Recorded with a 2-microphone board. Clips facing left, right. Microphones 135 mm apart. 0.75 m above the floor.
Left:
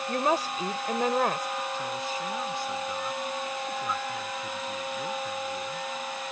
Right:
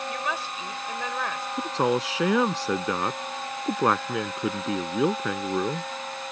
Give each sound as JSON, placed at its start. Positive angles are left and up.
{"t": 0.1, "sound": "a woman speaking", "side_deg": 40}
{"t": 1.6, "sound": "a man speaking", "side_deg": -85}